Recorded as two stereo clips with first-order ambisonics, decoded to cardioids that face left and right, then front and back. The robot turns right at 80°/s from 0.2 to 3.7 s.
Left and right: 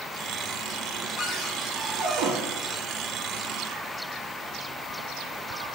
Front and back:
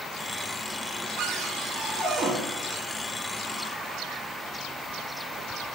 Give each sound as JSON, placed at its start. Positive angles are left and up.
{"t": 1.2, "sound": "a cupboard door", "azimuth_deg": 155, "distance_m": 0.7}